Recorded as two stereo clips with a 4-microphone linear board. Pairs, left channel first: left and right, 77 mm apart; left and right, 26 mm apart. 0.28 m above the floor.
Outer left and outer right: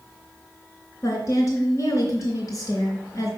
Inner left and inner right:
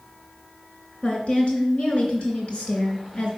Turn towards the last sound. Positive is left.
turn(degrees=45)  # may be behind; listen again after turning